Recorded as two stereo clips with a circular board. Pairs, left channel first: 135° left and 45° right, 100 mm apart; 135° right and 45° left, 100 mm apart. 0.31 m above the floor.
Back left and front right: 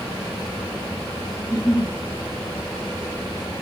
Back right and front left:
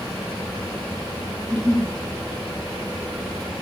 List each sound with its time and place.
1.4 s a giggle: 80° right, 1.2 m